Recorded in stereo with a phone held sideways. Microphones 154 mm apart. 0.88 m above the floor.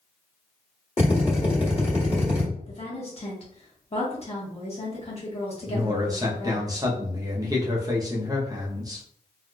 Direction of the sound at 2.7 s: 40° left (ahead or behind).